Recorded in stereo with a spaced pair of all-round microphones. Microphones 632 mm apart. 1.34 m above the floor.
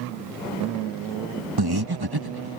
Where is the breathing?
35° right (ahead or behind).